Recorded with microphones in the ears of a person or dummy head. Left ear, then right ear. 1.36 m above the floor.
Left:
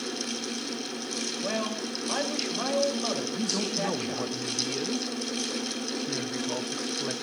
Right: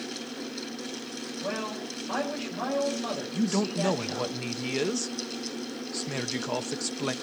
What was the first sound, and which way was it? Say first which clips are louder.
A man speaking: right 1 dB; 15° left (ahead or behind).